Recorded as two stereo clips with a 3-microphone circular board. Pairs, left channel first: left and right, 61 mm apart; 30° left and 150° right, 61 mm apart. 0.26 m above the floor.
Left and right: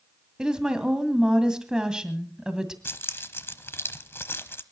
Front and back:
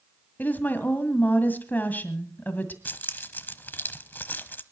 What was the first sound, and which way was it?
A woman speaking, 15° right.